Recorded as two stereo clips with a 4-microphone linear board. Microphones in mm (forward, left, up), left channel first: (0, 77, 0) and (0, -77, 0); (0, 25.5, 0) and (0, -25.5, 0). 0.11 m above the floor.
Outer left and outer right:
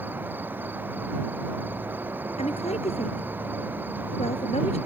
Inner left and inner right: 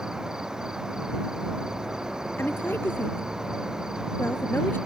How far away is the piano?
I don't hear a piano.